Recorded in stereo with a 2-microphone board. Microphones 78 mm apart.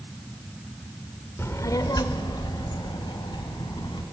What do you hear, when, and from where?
1.4 s a child speaking: 35° left (ahead or behind), 1.0 m; by 4.0 s 75° left (ahead or behind), 3 m